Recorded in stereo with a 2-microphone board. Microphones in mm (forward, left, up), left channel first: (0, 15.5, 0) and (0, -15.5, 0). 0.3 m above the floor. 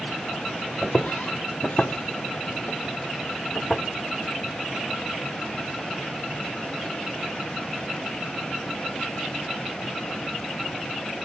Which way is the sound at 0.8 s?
40° left (ahead or behind).